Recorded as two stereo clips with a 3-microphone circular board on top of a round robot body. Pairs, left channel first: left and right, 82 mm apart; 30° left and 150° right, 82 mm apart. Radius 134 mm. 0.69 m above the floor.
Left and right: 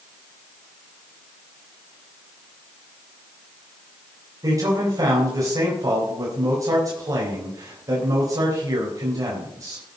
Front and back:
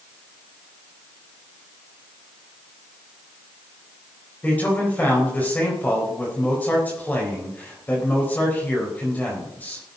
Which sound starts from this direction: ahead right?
A man speaking, at 4.4 s.